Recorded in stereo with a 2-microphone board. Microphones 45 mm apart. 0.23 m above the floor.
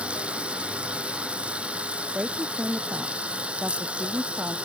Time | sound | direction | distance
0.0 | running water | 30° right (ahead or behind) | ?
2.1 | a woman speaking | 35° right (ahead or behind) | ?